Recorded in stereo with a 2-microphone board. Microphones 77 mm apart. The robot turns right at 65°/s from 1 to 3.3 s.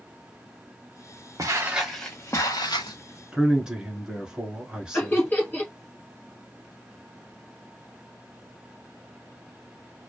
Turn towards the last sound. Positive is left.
turn(degrees=25)  # may be behind; listen again after turning